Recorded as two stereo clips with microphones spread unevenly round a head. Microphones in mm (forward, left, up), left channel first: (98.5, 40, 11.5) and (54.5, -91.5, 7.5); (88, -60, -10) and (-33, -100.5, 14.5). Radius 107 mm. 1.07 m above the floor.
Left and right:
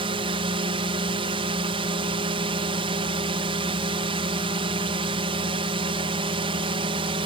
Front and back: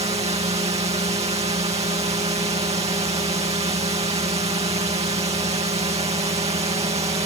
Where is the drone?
145° right.